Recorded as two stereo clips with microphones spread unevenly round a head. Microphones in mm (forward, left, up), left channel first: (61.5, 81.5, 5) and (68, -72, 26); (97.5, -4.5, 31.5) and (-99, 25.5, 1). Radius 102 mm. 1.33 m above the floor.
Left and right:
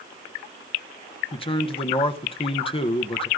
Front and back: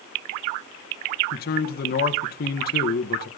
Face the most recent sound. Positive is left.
turn(degrees=35)